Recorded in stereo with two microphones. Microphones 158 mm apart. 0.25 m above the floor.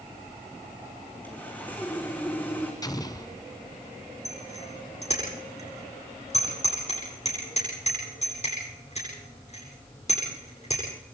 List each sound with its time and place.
1.2 s sawing: 10° left (ahead or behind), 3.5 m
2.8 s an explosion: 25° left (ahead or behind), 1.2 m
4.2 s a bicycle bell: 45° left (ahead or behind), 9 m